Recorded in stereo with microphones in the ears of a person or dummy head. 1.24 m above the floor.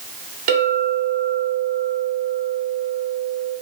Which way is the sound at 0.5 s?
50° right (ahead or behind).